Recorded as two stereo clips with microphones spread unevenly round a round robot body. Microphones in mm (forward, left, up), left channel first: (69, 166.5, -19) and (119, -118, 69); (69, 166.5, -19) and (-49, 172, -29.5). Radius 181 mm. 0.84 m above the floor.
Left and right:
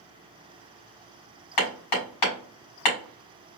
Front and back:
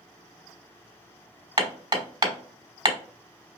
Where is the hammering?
130° left, 3 m.